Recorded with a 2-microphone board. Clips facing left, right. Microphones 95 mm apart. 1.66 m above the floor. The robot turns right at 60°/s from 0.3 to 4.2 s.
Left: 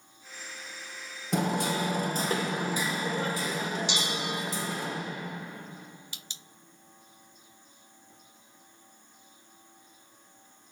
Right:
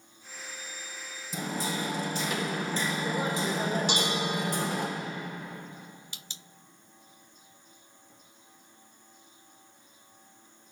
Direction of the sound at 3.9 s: 50° right (ahead or behind).